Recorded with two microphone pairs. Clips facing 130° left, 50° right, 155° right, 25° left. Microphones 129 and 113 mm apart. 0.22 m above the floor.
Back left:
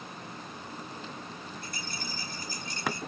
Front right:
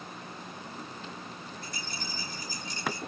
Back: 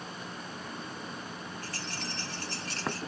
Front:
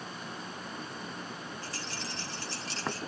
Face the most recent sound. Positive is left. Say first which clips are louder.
# back left 1 dB, back 1 dB
turn(degrees=165)